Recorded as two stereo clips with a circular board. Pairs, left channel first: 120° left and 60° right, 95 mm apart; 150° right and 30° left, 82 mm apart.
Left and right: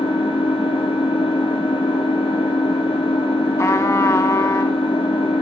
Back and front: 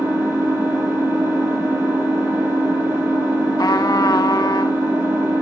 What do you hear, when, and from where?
0.0 s an engine running: 95° left, 1.9 m
3.6 s a trumpet: 175° left, 0.6 m